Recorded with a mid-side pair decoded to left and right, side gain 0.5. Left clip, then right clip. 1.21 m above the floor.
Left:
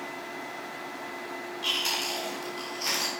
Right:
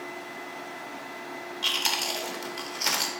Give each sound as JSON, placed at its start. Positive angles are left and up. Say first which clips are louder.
{"t": 1.6, "sound": "chewing", "louder": "right 2 dB", "azimuth_deg": -50, "distance_m": 2.0}